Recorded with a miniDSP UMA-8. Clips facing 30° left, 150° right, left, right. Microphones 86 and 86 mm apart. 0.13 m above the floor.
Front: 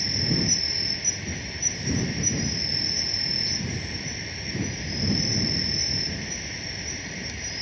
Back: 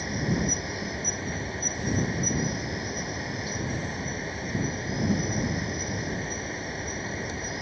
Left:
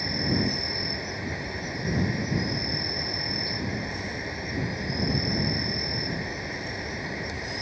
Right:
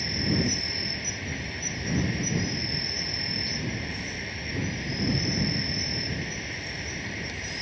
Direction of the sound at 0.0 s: 155° left.